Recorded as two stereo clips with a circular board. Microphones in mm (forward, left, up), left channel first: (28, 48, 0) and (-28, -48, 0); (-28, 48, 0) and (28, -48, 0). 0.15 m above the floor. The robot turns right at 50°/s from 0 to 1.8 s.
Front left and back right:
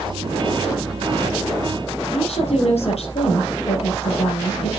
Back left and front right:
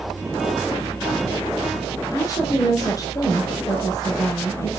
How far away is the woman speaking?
About 4 m.